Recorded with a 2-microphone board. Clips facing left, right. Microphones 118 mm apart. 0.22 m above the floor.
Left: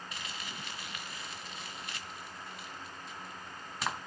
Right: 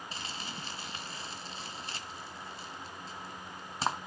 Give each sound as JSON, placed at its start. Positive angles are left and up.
{"t": 0.1, "sound": "crumpling", "side_deg": -30, "distance_m": 1.4}